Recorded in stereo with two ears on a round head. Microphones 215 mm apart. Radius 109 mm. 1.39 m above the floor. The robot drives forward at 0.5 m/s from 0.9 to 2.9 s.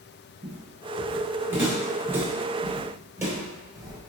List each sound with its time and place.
0.4 s footsteps: 10° right (ahead or behind), 1.6 m; by 4.1 s 15° right (ahead or behind), 1.4 m